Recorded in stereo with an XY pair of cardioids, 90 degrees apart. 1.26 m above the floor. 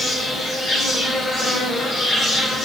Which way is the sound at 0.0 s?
60° left.